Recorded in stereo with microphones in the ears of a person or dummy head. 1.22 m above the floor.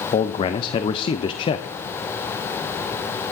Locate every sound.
0.1 s a man speaking: 30° left (ahead or behind), 0.7 m